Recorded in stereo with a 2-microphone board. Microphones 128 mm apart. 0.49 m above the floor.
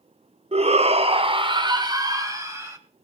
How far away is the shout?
About 1.0 m.